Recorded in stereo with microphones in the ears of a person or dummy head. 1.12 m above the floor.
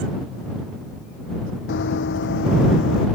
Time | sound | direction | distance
1.7 | running footsteps | 70° left (ahead or behind) | ?